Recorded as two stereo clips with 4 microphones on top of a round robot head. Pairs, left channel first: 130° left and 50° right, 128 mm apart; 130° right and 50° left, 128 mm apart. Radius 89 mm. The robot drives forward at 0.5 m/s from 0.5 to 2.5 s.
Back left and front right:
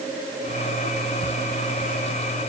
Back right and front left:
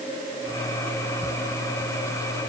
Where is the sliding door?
I don't hear a sliding door.